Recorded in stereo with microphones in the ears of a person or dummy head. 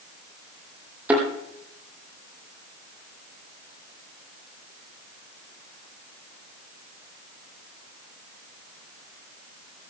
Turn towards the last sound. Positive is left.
turn(degrees=-5)  # may be behind; listen again after turning